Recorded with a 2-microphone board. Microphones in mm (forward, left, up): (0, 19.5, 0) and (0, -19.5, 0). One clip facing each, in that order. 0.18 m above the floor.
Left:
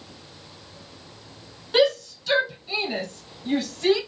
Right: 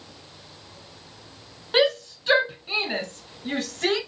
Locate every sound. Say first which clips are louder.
1.7 s a shout: left 1 dB; 25° right (ahead or behind), 1.9 m; by 4.0 s 60° right (ahead or behind), 2 m